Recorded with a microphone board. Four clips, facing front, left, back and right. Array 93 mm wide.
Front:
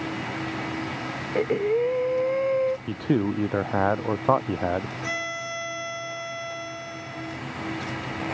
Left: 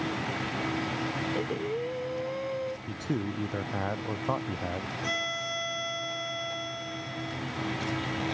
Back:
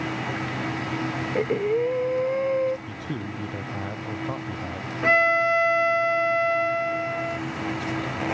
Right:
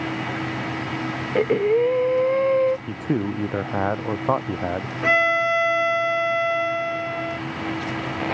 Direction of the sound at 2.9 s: 35° right.